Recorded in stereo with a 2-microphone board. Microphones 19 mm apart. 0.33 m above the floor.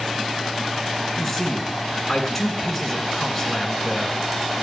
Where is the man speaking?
5° left (ahead or behind), 3 m.